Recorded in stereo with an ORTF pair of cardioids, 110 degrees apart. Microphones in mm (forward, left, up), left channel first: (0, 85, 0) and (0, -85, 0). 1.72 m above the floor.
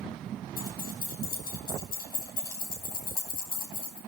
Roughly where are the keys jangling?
Ahead left.